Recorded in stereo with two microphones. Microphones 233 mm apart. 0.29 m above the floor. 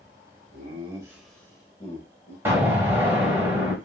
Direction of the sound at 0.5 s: 30° right (ahead or behind).